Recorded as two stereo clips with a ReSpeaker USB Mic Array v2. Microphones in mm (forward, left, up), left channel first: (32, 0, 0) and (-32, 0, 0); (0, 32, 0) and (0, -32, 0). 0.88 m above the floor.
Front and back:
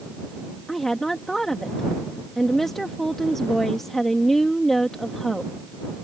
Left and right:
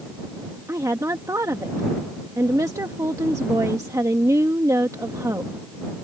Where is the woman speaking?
85° right.